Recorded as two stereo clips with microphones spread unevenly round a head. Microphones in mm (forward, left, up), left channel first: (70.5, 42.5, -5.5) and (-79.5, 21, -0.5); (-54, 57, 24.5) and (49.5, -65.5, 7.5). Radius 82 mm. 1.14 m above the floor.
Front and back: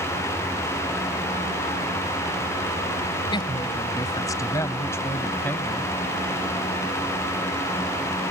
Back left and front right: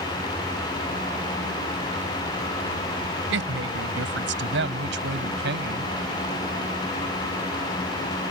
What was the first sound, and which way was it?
A woman speaking, 60° right.